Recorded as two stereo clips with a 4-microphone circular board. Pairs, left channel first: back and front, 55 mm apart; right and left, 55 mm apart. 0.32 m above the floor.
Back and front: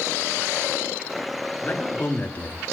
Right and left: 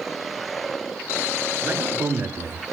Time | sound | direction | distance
1.6 | a man speaking | 125° left | 6.5 m